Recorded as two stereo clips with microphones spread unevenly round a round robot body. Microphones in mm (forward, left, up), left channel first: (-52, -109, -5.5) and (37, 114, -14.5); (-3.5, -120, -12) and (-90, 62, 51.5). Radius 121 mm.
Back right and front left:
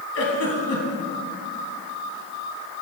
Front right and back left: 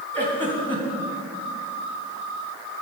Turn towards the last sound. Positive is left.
turn(degrees=-140)